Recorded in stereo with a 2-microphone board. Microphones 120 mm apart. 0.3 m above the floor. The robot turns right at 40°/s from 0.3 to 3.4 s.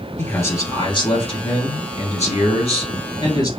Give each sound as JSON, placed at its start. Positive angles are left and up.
{"t": 0.2, "sound": "a man speaking", "azimuth_deg": 25, "distance_m": 2.5}